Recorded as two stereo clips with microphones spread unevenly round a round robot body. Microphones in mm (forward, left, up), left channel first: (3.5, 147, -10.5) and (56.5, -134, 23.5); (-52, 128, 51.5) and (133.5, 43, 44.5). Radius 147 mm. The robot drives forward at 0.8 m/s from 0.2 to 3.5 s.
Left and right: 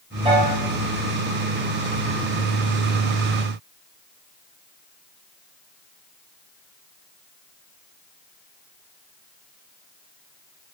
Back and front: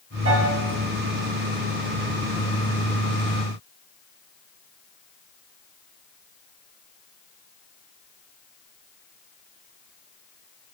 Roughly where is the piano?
Ahead.